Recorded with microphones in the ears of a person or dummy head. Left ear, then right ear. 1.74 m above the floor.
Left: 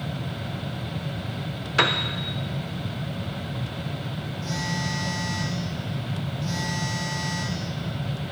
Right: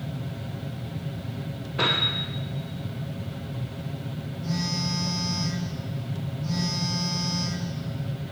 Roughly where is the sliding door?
I don't hear a sliding door.